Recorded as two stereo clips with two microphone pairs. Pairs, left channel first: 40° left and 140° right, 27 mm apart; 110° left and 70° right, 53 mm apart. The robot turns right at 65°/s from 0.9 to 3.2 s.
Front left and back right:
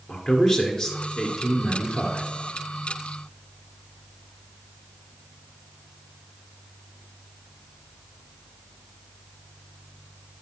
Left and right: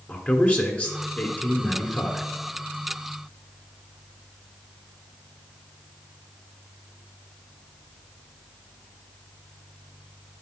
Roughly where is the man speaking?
Left.